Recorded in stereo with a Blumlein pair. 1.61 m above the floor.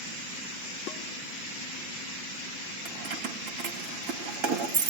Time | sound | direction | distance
0.9 | dishes clattering | 40° left | 3 m
2.9 | keys jangling | 40° right | 2.5 m